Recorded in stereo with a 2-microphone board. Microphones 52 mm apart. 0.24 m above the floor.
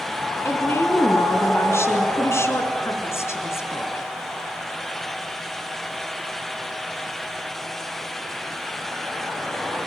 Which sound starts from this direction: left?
A woman speaking, at 0.5 s.